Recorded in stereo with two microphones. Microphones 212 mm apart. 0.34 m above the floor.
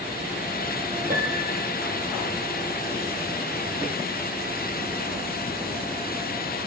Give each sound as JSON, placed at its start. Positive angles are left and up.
{"t": 1.1, "sound": "a piano", "side_deg": -45, "distance_m": 5.0}